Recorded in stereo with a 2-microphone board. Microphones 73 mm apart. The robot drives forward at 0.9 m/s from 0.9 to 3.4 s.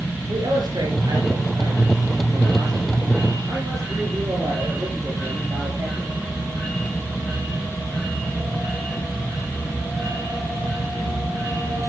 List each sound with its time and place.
0.3 s a man speaking: 65° right (ahead or behind), 4.5 m; by 6.2 s 45° right (ahead or behind), 5.5 m